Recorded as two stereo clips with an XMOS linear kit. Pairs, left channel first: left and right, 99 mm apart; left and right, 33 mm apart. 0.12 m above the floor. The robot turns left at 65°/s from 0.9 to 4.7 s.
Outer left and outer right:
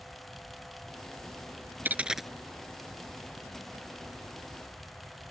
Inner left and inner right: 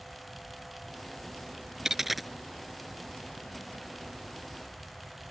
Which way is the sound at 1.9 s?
20° right (ahead or behind).